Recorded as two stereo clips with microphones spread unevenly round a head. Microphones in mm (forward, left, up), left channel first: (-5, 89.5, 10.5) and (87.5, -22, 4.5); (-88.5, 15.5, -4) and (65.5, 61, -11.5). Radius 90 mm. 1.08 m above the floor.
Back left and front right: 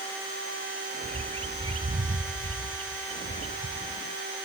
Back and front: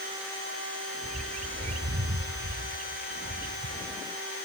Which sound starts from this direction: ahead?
A bird, at 1.0 s.